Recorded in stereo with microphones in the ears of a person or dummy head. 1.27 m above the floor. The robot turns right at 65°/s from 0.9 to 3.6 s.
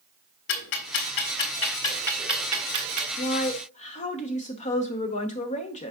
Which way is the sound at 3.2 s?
65° left (ahead or behind).